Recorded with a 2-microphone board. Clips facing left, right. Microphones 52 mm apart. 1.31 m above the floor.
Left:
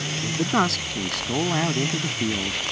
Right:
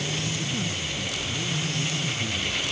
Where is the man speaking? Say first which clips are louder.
Left 8 dB; 85° left; by 2.6 s 80° left.